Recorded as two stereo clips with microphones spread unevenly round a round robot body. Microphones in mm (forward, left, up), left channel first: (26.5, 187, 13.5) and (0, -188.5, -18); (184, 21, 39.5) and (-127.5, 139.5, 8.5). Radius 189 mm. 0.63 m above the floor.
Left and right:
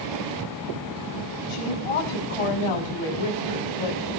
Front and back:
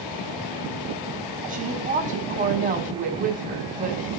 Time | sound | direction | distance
1.5 | a woman speaking | 95° left | 6.5 m